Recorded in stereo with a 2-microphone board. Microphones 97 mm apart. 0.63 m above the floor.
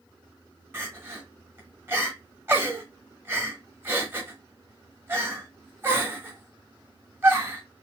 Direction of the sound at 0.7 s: 25° right (ahead or behind).